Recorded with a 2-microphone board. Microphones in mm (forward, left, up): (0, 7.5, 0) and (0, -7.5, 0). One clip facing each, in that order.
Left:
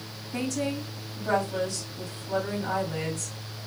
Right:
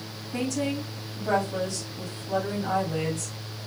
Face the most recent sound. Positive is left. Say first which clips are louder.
# right 1 dB
turn(degrees=0)  # may be behind; listen again after turning